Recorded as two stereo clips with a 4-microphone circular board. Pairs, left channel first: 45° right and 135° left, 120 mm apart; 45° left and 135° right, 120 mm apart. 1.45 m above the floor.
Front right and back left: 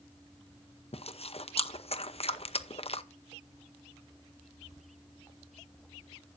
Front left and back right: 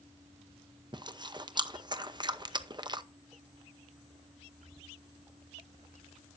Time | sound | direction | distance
0.9 | chewing | 80° right | 0.8 m